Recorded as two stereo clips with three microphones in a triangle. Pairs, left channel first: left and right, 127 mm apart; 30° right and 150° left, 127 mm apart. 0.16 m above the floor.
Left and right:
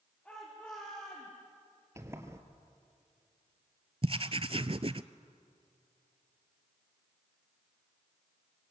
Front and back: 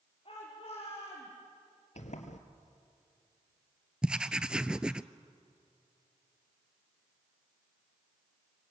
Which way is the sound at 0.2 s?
10° left.